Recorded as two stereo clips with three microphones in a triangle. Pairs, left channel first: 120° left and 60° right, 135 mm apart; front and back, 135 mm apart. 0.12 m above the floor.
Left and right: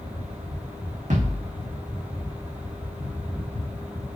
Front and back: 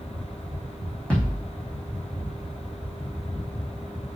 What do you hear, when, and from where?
1.1 s a thud: 80° right, 3 m